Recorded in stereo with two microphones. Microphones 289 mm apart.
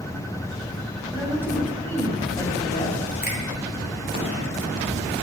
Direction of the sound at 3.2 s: 35° left (ahead or behind).